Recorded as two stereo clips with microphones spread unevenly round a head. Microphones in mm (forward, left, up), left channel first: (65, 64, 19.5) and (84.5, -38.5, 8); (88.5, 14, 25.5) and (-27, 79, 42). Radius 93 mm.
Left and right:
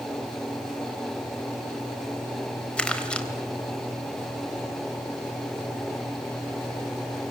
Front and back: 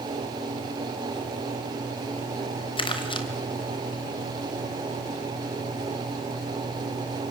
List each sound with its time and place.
2.8 s crumpling: 20° left, 3.5 m